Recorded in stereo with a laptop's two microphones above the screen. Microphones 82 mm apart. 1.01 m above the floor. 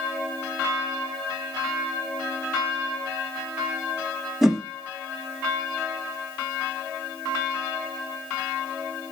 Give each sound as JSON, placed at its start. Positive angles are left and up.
{"t": 4.4, "sound": "a whoosh", "side_deg": -5, "distance_m": 0.7}